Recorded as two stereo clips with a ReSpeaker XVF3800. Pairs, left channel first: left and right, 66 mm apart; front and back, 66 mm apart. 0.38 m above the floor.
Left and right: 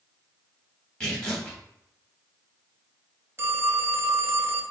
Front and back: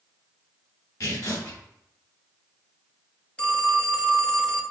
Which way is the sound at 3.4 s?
65° right.